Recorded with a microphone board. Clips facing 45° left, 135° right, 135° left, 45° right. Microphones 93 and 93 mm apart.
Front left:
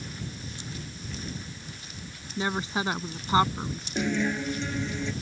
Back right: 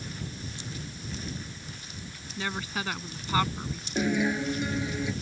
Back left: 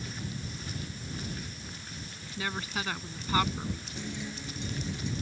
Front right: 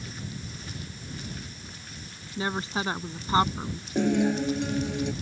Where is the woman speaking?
Straight ahead.